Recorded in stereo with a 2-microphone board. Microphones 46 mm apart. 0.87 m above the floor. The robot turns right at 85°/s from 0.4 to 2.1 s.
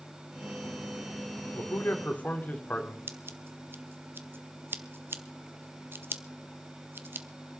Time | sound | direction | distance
1.6 | a man speaking | 90° left | 2 m
3.1 | scissors | 55° right (ahead or behind) | 0.9 m